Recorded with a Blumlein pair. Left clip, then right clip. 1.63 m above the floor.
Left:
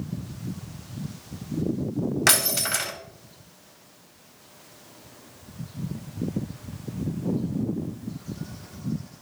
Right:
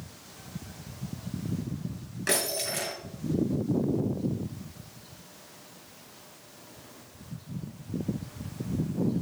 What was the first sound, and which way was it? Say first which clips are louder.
Breaking glass: left 6 dB; 45° left.